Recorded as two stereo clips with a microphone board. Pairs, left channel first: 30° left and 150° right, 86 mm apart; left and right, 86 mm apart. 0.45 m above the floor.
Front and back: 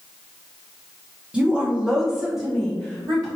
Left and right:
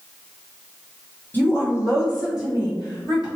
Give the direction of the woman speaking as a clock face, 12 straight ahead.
7 o'clock.